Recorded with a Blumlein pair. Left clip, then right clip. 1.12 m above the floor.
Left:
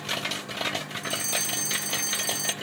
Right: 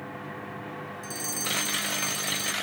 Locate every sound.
1.0 s a fire alarm: 10° left